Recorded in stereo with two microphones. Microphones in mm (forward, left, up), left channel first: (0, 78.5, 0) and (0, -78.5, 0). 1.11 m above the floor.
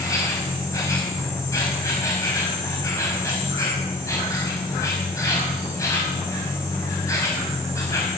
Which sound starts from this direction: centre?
An insect, at 0.0 s.